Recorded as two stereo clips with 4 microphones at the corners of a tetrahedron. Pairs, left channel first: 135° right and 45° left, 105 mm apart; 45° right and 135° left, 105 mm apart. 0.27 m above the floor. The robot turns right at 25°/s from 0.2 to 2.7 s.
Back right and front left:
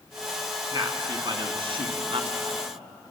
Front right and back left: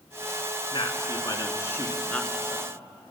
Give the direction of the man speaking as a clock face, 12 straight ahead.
12 o'clock.